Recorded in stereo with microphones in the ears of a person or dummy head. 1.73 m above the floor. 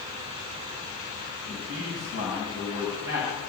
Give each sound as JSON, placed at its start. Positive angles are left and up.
{"t": 1.5, "sound": "a man speaking", "side_deg": -70, "distance_m": 8.0}